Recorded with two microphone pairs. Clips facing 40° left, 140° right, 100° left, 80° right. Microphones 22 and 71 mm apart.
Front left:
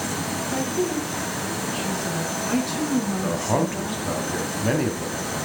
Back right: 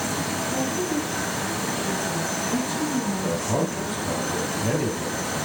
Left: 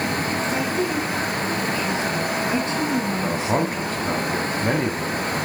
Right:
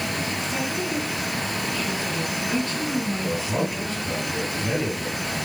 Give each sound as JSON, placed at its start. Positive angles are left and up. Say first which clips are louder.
{"t": 0.5, "sound": "a woman speaking", "louder": "front left 3 dB, left 4 dB", "azimuth_deg": 45, "distance_m": 4.5}
{"t": 3.2, "sound": "a man speaking", "louder": "front left 2 dB, left 4 dB", "azimuth_deg": 90, "distance_m": 2.0}